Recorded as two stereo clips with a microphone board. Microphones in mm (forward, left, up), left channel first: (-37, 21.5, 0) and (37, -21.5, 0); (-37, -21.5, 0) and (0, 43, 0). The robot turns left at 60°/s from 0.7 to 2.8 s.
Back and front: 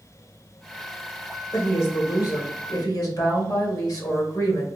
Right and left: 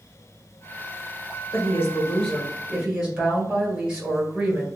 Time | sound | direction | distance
1.5 | a woman speaking | 145° right | 1.3 m